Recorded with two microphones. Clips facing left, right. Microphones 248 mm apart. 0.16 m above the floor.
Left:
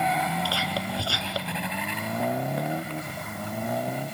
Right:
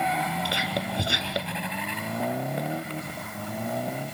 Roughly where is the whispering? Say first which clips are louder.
Even; centre.